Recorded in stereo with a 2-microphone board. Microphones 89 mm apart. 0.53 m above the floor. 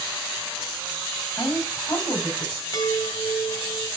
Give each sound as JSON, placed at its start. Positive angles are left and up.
{"t": 1.4, "sound": "a woman speaking", "side_deg": 25, "distance_m": 3.5}
{"t": 2.7, "sound": "a chime", "side_deg": 40, "distance_m": 2.5}